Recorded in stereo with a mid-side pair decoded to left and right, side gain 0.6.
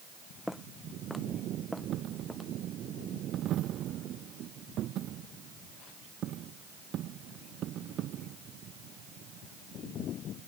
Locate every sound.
0.5 s footsteps: 5° left; by 2.5 s straight ahead
1.9 s a dropped coin: 55° right